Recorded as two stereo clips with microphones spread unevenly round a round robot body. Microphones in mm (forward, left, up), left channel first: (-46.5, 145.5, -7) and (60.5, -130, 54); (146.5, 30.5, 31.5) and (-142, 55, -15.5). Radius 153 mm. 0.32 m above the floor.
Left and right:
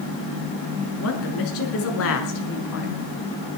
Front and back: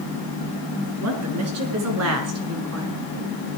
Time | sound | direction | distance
1.0 | a woman speaking | 145° left | 5 m